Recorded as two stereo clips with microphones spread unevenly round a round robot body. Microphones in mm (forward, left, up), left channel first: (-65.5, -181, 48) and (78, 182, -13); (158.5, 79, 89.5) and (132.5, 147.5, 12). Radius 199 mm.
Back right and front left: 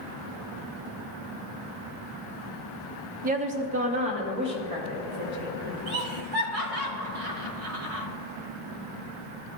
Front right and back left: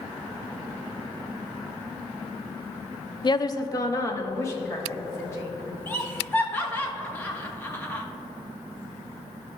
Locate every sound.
3.2 s a woman speaking: 10° left, 0.6 m; by 6.1 s 10° right, 3 m
5.9 s laughter: 20° left, 1.6 m